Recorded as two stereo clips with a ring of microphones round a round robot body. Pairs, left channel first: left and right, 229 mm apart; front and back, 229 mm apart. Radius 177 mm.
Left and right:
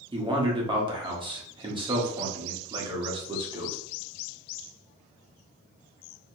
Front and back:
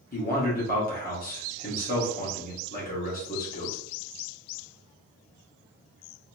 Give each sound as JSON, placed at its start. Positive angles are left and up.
{"t": 0.1, "sound": "a man speaking", "azimuth_deg": -30, "distance_m": 1.3}